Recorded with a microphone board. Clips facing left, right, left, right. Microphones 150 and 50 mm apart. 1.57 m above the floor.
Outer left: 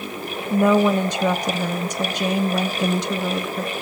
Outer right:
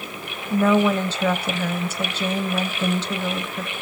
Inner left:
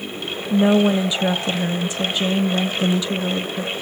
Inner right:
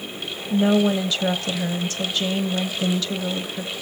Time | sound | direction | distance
0.5 | a woman speaking | 15° left (ahead or behind) | 0.8 m